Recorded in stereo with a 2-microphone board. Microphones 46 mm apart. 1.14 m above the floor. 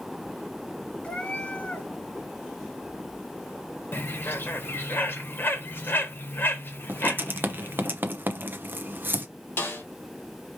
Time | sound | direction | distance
1.0 | a cat meowing | 30° left (ahead or behind) | 2 m
3.9 | a bird | 50° left (ahead or behind) | 1.1 m
6.9 | writing | 45° right (ahead or behind) | 0.8 m
9.6 | a snare drum | 55° left (ahead or behind) | 2.5 m